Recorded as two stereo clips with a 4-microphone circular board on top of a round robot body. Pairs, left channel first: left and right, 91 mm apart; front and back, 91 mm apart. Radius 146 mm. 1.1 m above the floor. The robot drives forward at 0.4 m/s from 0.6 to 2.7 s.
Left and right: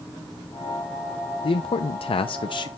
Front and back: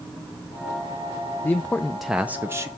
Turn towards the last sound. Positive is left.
turn(degrees=125)